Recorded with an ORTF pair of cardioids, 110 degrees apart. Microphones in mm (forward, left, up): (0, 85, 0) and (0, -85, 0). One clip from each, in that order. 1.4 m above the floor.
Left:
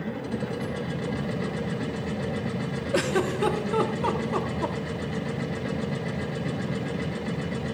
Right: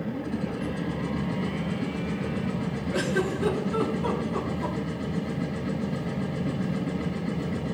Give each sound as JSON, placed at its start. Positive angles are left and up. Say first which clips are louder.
{"t": 0.0, "sound": "a machine running", "louder": "even", "azimuth_deg": 65, "distance_m": 2.5}
{"t": 2.9, "sound": "a giggle", "louder": "left 2 dB", "azimuth_deg": 45, "distance_m": 1.3}